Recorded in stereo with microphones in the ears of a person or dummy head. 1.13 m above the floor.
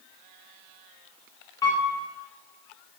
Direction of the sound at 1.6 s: 20° left (ahead or behind).